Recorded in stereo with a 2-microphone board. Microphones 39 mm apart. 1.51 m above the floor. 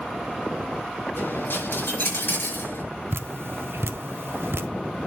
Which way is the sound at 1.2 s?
60° left (ahead or behind).